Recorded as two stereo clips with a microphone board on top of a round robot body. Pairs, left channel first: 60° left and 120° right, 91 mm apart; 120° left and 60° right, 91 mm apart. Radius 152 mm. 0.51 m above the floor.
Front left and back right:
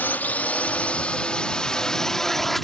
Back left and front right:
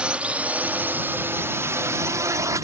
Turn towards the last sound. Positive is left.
turn(degrees=-30)